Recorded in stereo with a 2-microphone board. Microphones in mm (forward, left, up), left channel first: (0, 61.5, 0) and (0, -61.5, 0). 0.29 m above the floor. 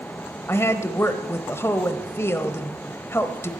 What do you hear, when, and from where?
0.5 s a woman speaking: 20° left (ahead or behind), 1.0 m